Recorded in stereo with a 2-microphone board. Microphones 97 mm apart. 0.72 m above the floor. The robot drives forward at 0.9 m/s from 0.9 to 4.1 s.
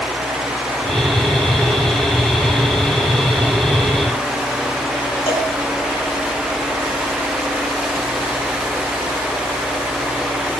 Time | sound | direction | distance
5.3 | a cowbell | 70° left (ahead or behind) | 1.7 m